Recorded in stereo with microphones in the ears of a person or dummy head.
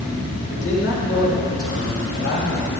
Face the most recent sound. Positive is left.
turn(degrees=75)  # may be behind; listen again after turning